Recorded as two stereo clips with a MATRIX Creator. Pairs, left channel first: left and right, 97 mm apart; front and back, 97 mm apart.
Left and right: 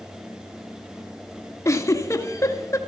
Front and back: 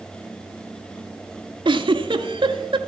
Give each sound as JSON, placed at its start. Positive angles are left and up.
{"t": 1.6, "sound": "a giggle", "azimuth_deg": 150, "distance_m": 0.8}